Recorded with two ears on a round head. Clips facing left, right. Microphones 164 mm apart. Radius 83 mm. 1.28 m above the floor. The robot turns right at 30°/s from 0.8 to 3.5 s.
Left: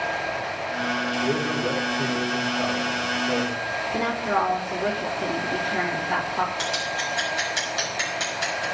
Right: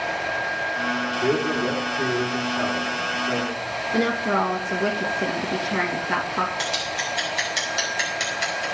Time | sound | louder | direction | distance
1.2 | a man speaking | right 4 dB | 100° right | 3.5 m
3.9 | a woman speaking | right 3 dB | 55° right (ahead or behind) | 1.8 m
6.6 | scissors | even | 25° right (ahead or behind) | 5.5 m